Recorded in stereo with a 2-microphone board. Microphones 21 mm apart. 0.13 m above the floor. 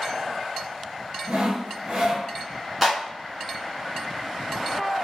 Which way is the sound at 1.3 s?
50° right (ahead or behind).